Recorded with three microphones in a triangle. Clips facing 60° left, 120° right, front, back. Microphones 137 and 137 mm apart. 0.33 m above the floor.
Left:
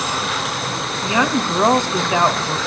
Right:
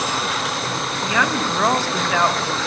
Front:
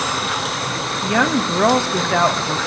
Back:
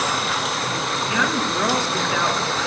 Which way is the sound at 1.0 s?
5° right.